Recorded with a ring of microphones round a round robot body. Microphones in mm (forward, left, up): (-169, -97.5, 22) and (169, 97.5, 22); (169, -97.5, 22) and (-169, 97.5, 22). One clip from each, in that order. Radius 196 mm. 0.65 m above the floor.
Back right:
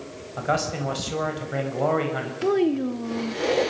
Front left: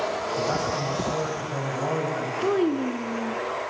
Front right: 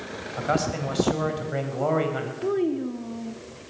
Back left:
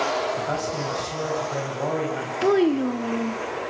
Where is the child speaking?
125° left, 0.6 m.